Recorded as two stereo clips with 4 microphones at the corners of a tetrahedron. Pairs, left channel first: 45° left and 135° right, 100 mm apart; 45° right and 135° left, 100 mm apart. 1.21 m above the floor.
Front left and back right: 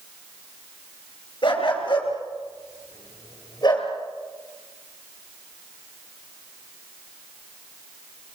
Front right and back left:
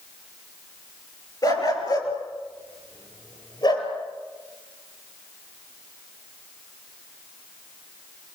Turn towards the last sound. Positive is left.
turn(degrees=-5)